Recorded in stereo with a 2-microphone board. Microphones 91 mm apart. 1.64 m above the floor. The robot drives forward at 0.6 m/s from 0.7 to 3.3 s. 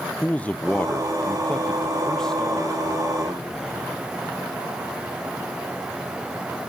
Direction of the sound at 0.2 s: 15° left (ahead or behind).